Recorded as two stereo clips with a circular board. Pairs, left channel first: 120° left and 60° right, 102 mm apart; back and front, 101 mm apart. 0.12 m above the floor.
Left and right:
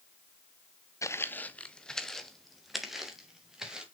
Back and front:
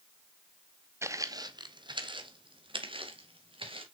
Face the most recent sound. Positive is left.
turn(degrees=25)